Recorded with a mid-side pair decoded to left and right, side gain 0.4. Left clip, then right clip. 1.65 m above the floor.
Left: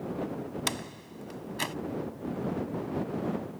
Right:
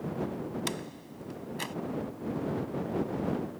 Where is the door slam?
40° left.